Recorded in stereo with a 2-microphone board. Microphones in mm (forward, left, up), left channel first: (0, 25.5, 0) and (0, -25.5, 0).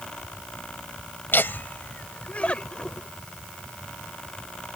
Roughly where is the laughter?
Left.